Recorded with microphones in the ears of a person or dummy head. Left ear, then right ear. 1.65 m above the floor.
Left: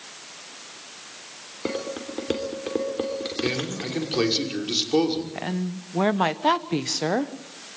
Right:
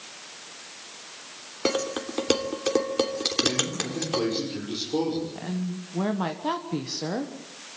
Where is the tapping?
I don't hear tapping.